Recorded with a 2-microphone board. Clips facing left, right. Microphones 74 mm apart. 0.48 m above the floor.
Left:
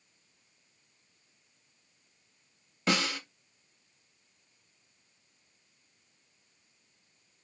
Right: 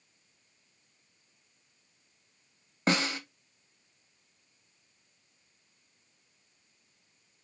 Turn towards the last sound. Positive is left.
turn(degrees=-40)  # may be behind; listen again after turning